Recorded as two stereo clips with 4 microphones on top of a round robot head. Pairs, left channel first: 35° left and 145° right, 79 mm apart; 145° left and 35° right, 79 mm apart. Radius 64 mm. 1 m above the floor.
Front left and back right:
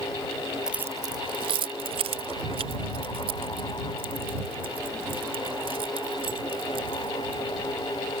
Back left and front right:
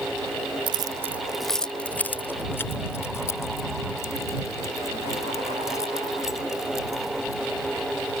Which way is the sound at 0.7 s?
65° right.